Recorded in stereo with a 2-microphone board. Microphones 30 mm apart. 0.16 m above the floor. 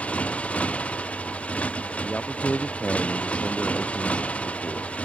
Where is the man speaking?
35° left (ahead or behind).